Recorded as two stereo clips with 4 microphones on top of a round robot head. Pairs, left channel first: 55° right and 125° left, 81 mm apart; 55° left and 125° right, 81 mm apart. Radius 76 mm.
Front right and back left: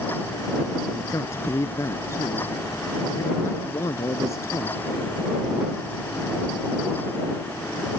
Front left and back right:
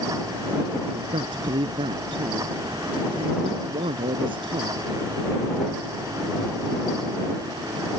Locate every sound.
0.9 s a man speaking: 110° right